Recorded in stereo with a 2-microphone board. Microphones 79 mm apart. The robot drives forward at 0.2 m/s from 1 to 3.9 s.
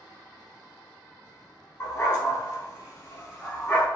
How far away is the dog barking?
About 0.9 m.